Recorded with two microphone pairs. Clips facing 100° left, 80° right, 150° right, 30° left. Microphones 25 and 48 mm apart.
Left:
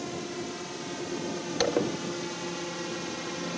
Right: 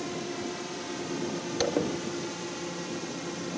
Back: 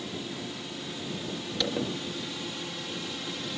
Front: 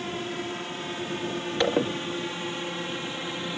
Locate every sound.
0.0 s a drone: 10° left; by 3.6 s 55° left
1.6 s a zipper: 40° left